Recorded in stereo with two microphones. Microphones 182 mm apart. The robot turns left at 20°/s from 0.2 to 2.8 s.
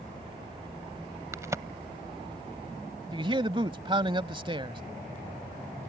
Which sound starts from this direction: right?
A man speaking, at 3.1 s.